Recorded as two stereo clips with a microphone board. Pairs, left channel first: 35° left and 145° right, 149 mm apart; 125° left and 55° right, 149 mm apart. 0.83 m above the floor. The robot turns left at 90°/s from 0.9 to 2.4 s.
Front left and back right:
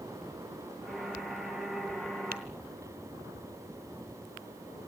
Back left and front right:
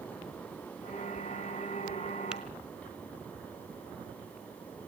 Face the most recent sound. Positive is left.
turn(degrees=-145)